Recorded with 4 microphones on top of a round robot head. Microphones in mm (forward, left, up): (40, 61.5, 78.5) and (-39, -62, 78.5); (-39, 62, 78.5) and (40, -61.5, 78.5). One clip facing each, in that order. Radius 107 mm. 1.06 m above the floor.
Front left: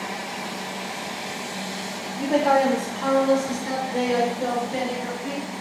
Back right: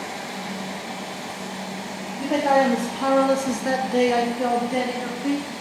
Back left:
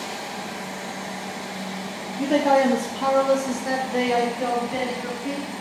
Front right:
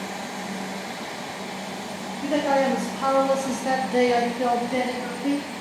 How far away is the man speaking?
About 0.7 m.